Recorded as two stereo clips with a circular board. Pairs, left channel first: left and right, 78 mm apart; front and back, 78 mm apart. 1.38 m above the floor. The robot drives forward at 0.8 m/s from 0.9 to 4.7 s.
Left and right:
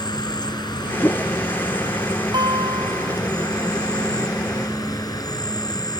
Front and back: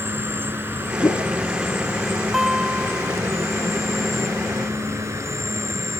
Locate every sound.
0.0 s an insect: 115° left; by 6.0 s 125° left
1.0 s a whoosh: 30° left
2.3 s a guitar: 95° right; by 3.2 s 110° right